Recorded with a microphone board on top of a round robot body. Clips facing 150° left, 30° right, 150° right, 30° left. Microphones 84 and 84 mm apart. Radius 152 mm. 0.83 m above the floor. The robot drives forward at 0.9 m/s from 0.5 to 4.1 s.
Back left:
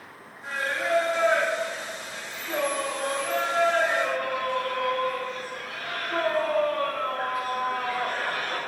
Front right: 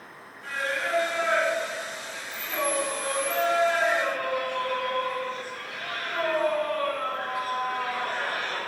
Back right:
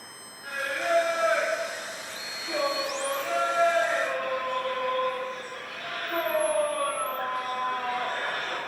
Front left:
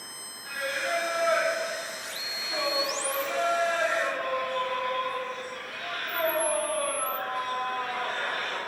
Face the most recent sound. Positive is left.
turn(degrees=-160)